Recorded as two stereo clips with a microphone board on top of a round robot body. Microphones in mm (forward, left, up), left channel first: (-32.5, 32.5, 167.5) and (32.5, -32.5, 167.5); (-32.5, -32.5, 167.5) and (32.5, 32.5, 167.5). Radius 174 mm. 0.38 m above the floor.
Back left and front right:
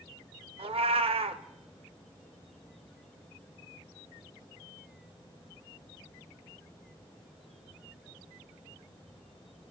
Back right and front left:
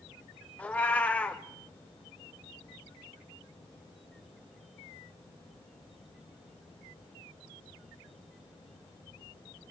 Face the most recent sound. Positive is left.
turn(degrees=-60)